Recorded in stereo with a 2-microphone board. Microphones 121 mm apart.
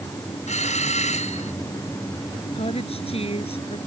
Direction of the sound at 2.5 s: 55° left (ahead or behind).